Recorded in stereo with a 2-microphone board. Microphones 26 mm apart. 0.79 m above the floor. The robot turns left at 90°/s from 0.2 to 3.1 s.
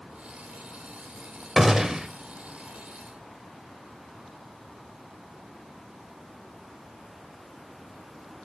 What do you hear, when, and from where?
1.6 s a gunshot: 15° right (ahead or behind), 0.5 m; by 2.1 s 25° right (ahead or behind), 0.5 m